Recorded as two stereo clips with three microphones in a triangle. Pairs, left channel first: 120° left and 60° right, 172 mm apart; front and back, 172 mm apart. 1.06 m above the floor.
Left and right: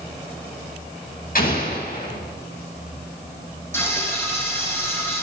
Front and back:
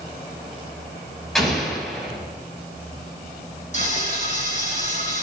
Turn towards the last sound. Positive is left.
turn(degrees=45)